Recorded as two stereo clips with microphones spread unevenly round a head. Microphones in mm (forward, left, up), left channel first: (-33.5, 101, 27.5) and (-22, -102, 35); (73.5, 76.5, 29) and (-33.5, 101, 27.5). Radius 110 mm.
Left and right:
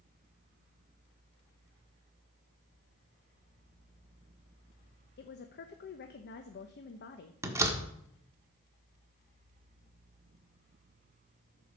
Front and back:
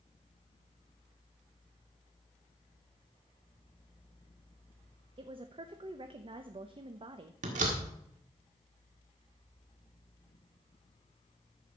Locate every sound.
5.2 s a woman speaking: 130° left, 1.0 m
7.4 s a door slam: 165° right, 1.5 m